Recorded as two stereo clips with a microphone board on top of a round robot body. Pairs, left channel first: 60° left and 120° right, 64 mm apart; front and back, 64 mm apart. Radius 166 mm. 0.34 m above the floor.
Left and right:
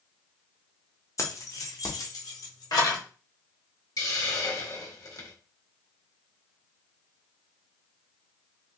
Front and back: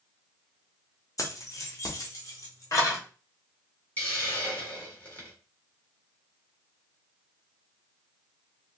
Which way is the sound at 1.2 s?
30° left.